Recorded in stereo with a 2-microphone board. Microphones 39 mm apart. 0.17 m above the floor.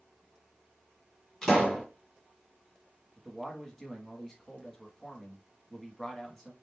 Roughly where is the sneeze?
I don't hear a sneeze.